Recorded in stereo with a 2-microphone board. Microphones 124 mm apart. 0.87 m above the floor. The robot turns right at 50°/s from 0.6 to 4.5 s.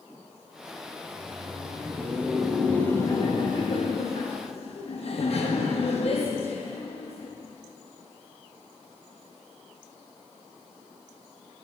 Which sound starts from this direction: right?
Laughter, at 1.0 s.